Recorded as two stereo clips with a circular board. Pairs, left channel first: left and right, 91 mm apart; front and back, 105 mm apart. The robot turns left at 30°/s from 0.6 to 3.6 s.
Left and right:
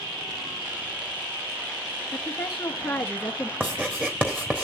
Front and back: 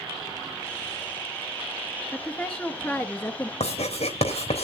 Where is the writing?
15° right, 3.5 m.